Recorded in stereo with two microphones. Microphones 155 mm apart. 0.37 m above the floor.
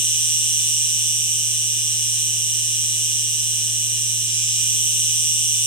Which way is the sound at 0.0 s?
30° left (ahead or behind).